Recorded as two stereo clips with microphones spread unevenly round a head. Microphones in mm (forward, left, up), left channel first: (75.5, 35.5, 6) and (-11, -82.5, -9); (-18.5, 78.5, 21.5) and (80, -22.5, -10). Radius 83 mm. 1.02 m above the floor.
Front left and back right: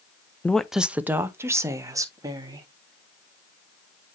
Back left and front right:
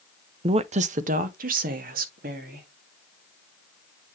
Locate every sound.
0.4 s a woman speaking: 30° right, 0.5 m; by 2.7 s 65° right, 2.0 m